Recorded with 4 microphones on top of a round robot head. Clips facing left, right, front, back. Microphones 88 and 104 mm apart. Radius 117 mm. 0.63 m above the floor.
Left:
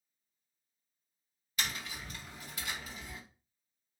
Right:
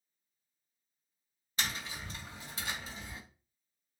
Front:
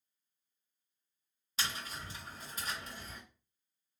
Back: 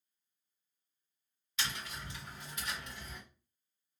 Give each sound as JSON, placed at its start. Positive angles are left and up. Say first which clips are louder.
{"t": 1.6, "sound": "tapping", "louder": "right 1 dB, front 1 dB", "azimuth_deg": -40, "distance_m": 1.7}